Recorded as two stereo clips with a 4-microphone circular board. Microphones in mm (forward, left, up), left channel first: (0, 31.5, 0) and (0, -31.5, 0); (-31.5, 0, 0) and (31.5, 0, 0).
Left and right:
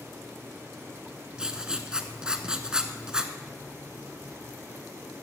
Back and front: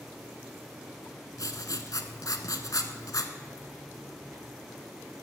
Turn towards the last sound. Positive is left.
turn(degrees=-165)